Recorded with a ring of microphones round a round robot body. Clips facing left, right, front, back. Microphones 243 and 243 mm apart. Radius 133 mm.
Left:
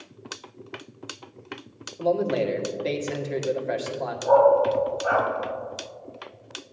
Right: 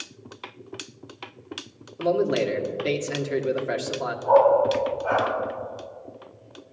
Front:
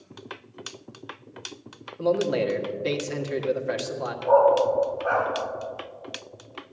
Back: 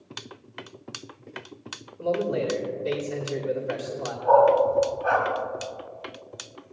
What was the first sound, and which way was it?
A man speaking, 15° right.